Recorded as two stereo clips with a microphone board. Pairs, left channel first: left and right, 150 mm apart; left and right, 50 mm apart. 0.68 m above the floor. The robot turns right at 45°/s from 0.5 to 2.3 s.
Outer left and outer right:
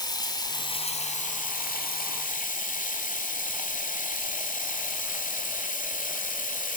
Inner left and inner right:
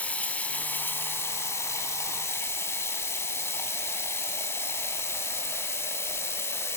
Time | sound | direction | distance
0.0 | running water | 30° left | 1.0 m